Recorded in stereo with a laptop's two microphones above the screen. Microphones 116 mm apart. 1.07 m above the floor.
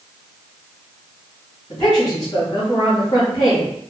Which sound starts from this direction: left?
A woman speaking, at 1.7 s.